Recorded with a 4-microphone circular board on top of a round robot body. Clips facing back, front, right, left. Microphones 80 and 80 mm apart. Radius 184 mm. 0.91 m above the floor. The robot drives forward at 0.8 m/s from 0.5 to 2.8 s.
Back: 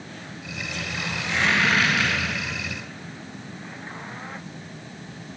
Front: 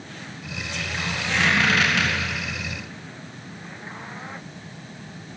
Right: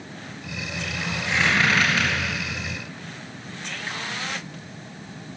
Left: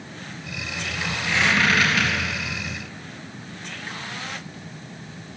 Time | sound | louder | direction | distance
1.3 | a squeak | front 1 dB, left 1 dB | 25° right | 4 m